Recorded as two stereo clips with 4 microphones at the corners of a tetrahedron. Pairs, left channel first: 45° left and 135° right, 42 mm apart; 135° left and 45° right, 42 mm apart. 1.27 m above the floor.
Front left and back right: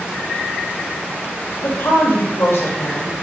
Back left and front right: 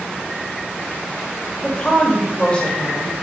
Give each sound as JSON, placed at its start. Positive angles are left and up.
{"t": 1.6, "sound": "a woman speaking", "azimuth_deg": 70, "distance_m": 2.0}